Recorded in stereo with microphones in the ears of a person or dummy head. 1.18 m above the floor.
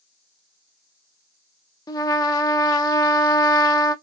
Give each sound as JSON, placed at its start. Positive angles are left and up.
{"t": 1.9, "sound": "a trumpet", "side_deg": 25, "distance_m": 0.5}